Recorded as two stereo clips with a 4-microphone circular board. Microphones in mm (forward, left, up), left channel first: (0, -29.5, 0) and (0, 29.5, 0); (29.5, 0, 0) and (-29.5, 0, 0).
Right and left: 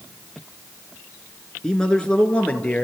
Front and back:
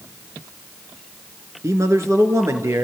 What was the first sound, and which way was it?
A man speaking, 165° right.